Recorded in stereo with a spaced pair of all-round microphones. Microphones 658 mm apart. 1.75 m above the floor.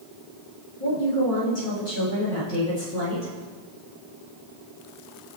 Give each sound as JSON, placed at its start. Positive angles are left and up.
{"t": 0.8, "sound": "a woman speaking", "side_deg": 65, "distance_m": 3.0}